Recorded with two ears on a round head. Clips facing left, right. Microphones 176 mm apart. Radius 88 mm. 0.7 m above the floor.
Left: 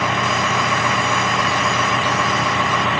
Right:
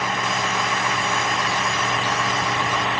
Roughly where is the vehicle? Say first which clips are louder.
Left 4 dB; left.